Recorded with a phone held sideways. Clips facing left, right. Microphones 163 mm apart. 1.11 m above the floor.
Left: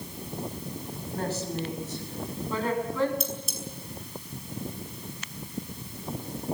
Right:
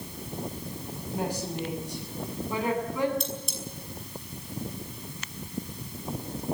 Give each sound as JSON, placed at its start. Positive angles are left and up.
{"t": 1.1, "sound": "a woman speaking", "side_deg": -15, "distance_m": 6.5}
{"t": 3.2, "sound": "cutlery clinking", "side_deg": 0, "distance_m": 5.5}